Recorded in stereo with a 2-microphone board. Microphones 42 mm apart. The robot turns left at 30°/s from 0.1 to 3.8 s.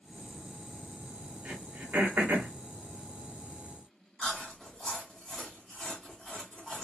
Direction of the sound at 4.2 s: 10° left (ahead or behind).